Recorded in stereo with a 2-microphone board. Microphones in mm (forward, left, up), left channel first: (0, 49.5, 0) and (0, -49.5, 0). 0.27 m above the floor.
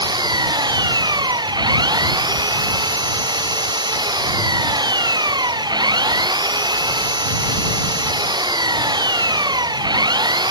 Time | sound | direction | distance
0.0 | an engine running | 45° right (ahead or behind) | ?